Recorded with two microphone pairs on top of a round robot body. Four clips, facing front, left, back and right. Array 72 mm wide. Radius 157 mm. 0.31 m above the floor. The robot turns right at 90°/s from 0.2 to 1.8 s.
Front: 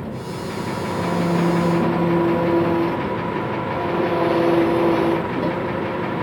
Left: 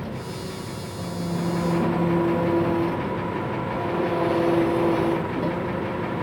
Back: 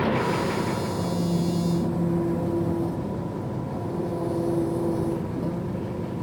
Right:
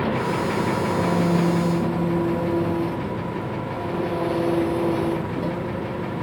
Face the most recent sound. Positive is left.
turn(degrees=15)